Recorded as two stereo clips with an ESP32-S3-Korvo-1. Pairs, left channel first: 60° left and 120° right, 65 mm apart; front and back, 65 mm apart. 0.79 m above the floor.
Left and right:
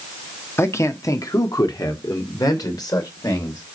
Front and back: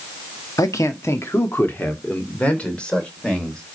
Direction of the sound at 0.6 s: 15° left.